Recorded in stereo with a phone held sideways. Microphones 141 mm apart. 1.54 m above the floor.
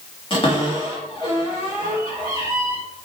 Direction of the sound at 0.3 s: 40° left (ahead or behind).